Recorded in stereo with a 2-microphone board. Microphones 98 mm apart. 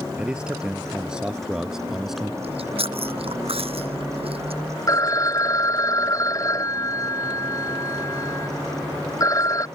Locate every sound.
0.2 s a man speaking: 10° right (ahead or behind); by 2.3 s centre (ahead or behind)
2.4 s chewing: 75° right (ahead or behind)
4.9 s a phone ringing: 35° left (ahead or behind)